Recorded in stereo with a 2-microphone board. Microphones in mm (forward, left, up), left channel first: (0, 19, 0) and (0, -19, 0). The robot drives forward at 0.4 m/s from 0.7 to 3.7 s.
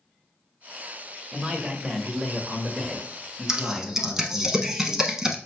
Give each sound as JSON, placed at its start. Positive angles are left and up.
{"t": 1.3, "sound": "a man speaking", "side_deg": -20, "distance_m": 1.0}
{"t": 3.5, "sound": "typing on a keyboard", "side_deg": -20, "distance_m": 0.5}